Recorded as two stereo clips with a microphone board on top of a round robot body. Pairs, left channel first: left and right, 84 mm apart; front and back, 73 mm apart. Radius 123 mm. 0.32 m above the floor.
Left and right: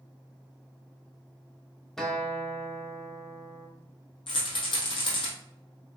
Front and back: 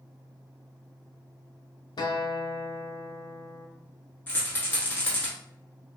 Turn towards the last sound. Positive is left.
turn(degrees=70)